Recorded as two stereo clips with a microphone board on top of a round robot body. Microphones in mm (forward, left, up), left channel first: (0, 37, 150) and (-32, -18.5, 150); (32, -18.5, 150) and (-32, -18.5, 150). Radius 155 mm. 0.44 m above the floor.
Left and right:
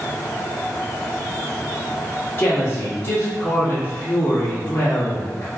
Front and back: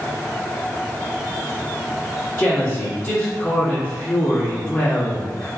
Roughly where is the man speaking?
Ahead left.